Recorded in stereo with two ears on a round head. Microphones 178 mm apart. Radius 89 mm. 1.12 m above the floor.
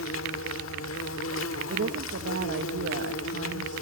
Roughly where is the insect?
Left.